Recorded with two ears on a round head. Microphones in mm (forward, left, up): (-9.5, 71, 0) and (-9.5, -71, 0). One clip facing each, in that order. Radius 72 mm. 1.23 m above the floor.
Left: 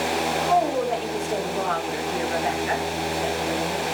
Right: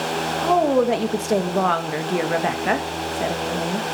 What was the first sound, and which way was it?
A woman speaking, 65° right (ahead or behind).